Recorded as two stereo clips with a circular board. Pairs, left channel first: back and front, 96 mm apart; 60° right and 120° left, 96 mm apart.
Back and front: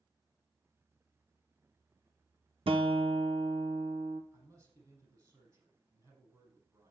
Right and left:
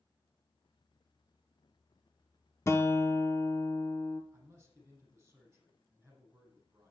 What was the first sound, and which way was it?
A guitar, straight ahead.